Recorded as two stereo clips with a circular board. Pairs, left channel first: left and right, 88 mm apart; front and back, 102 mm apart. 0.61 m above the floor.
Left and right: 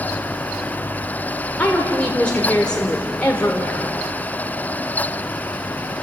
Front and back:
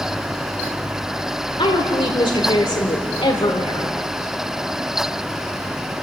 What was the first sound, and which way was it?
A woman speaking, 15° left.